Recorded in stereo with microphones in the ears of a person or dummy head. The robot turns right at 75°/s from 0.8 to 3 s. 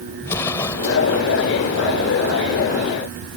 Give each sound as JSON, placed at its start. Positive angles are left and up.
{"t": 0.2, "sound": "an explosion", "side_deg": 20}